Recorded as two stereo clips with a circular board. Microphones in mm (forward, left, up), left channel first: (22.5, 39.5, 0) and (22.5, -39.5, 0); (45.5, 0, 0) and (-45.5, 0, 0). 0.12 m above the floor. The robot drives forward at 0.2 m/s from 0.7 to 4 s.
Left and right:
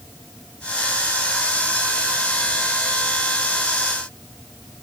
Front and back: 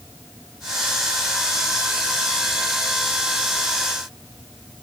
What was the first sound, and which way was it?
Only background noise.